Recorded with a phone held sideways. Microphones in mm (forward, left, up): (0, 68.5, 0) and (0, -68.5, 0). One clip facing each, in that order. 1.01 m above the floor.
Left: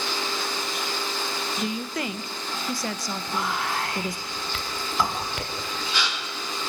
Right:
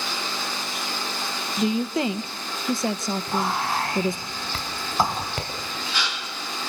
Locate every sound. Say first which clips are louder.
1.6 s a woman speaking: right 9 dB; 25° right (ahead or behind), 0.9 m
3.3 s whispering: right 2 dB; 35° right (ahead or behind), 4.5 m